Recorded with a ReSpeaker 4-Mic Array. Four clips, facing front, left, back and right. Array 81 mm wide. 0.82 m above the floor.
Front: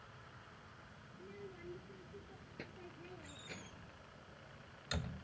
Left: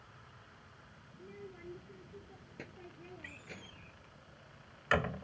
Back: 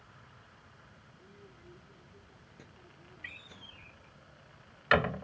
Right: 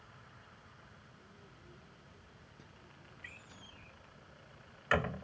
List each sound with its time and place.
1.1 s a child speaking: 65° left
3.2 s a door slam: straight behind